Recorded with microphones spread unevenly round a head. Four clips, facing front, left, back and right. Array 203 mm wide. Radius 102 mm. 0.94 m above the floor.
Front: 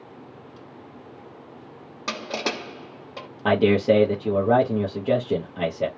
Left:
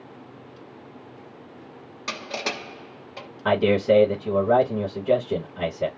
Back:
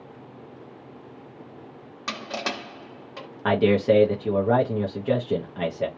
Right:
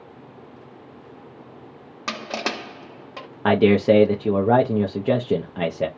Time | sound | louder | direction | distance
2.1 | crushing | right 3 dB, front 2 dB | 55° right | 1.2 m
3.5 | a man speaking | right 3 dB, front 1 dB | 70° right | 0.6 m